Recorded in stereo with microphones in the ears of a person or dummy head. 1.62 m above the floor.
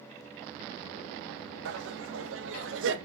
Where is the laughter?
75° right (ahead or behind), 2.0 m.